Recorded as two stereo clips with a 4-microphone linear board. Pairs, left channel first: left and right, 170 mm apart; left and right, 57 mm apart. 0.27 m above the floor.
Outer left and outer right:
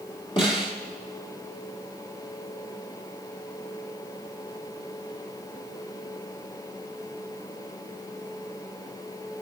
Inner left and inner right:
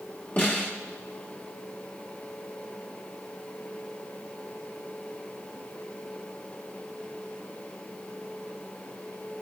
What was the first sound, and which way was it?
A snare drum, 35° left (ahead or behind).